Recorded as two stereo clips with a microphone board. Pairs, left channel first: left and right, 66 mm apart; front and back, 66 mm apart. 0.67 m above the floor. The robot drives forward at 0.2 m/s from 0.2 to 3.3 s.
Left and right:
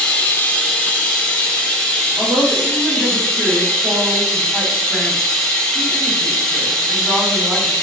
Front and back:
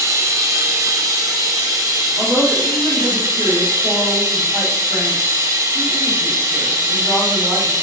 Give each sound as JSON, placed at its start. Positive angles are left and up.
{"t": 0.0, "sound": "running water", "azimuth_deg": 150, "distance_m": 0.7}
{"t": 2.2, "sound": "a woman speaking", "azimuth_deg": -160, "distance_m": 1.5}